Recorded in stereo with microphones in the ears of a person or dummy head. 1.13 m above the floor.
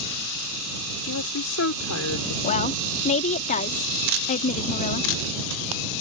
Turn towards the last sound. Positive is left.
turn(degrees=35)  # may be behind; listen again after turning